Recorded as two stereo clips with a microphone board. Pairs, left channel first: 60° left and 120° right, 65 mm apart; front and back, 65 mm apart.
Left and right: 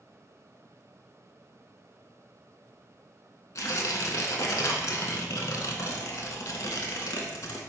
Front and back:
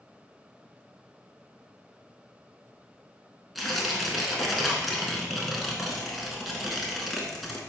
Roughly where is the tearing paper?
Left.